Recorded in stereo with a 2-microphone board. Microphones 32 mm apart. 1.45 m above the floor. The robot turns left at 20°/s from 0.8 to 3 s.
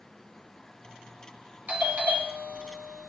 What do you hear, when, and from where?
1.7 s a doorbell: 50° right (ahead or behind), 2 m; by 3.1 s 70° right (ahead or behind), 2 m